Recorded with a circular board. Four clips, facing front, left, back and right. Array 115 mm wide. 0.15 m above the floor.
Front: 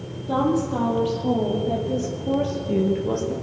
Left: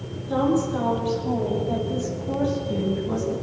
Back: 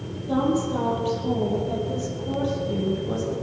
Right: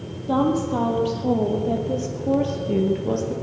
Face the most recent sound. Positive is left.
turn(degrees=-55)